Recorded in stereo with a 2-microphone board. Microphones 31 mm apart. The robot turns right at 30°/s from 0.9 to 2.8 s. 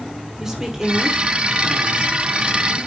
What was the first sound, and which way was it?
A woman speaking, 160° right.